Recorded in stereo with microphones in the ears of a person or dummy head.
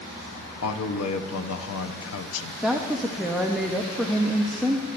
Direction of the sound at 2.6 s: Centre (ahead or behind).